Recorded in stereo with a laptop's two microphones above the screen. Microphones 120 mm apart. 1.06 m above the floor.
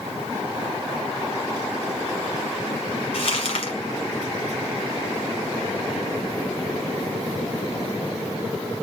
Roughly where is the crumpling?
Left.